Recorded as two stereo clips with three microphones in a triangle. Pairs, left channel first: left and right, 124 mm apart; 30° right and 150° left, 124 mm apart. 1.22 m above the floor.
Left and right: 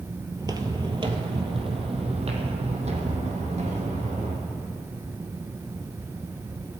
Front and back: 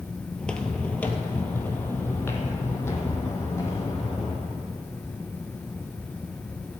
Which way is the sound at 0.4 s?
110° right.